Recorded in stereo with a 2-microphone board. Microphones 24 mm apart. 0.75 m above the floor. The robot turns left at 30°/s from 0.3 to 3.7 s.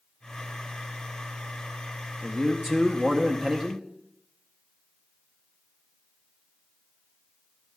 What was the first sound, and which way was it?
A man speaking, 30° left.